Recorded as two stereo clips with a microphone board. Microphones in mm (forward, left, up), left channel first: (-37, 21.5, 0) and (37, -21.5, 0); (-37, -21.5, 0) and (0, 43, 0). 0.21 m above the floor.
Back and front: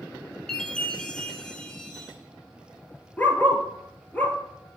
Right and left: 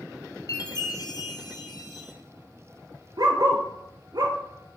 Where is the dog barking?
80° left, 1.3 m.